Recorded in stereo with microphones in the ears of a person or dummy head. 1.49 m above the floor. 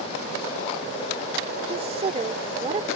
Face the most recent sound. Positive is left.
turn(degrees=-30)  # may be behind; listen again after turning